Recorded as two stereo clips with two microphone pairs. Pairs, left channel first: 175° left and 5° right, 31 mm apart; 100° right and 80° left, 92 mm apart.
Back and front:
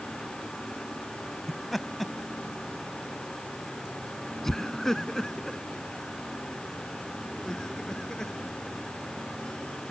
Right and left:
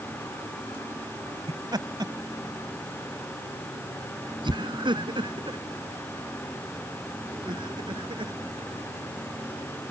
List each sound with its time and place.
1.5 s laughter: 85° left; by 8.3 s 105° left